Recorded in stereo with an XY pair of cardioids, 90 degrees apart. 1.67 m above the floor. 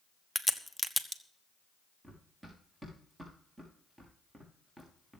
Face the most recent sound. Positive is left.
turn(degrees=-25)